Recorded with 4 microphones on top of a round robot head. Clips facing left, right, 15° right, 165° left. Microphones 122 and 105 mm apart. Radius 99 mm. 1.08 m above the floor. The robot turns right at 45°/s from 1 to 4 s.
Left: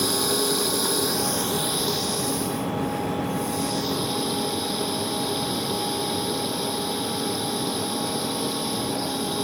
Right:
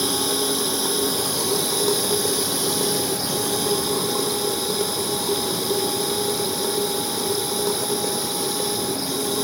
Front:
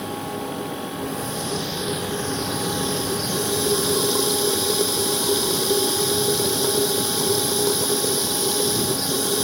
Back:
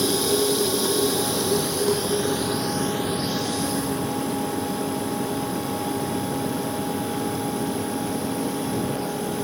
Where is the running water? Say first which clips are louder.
Even, back 7 dB; 170° right; by 9.4 s 35° right.